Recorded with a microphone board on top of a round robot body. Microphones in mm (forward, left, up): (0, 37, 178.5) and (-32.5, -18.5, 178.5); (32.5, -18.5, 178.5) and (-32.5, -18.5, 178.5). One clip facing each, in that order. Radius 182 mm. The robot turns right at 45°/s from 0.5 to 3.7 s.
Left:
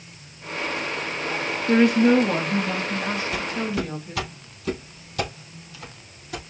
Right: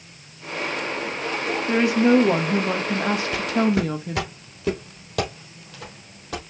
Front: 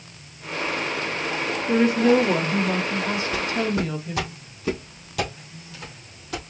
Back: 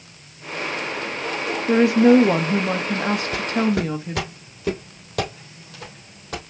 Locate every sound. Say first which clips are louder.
1.7 s a woman speaking: left 1 dB, back 4 dB; 145° left, 1.4 m; by 4.3 s 120° right, 1.4 m
3.3 s footsteps: right 5 dB, back 3 dB; 165° left, 1.2 m; by 6.4 s 130° right, 3.5 m